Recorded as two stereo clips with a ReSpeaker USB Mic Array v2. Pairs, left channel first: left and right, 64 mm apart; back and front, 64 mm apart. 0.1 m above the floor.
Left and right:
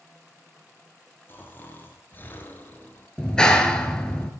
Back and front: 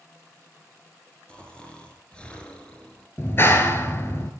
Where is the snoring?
120° left, 1.5 m.